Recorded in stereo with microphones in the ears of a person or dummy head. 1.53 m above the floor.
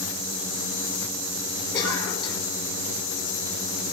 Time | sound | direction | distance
1.7 | a cough | 25° left (ahead or behind) | 5 m